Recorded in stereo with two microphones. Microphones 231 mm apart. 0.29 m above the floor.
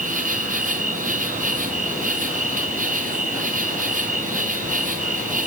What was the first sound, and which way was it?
An insect, 35° right (ahead or behind).